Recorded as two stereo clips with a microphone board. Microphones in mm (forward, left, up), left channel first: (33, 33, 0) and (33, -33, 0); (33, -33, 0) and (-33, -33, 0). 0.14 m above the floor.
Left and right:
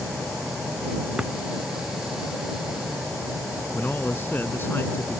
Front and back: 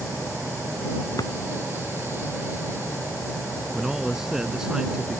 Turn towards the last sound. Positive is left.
turn(degrees=105)